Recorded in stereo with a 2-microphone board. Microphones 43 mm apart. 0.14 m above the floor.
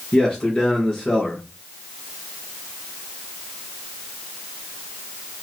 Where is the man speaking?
20° left (ahead or behind), 2 m.